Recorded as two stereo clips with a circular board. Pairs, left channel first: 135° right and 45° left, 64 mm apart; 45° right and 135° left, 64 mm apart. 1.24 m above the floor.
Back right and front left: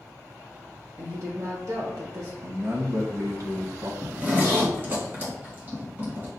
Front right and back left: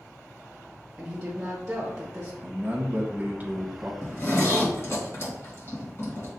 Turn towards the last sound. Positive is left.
turn(degrees=-10)